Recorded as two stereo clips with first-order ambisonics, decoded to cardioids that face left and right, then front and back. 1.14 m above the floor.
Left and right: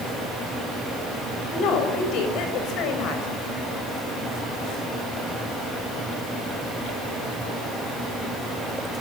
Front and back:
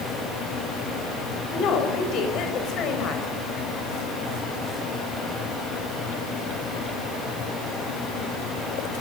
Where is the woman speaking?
50° left, 6.5 m.